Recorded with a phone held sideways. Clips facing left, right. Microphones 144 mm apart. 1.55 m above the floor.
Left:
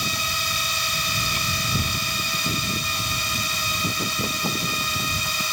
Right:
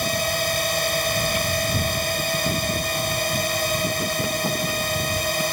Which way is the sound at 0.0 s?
55° right (ahead or behind).